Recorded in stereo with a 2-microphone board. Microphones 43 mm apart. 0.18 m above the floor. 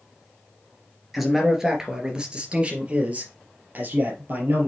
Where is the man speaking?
Centre (ahead or behind), 2.5 m; by 4.7 s 50° right (ahead or behind), 4 m.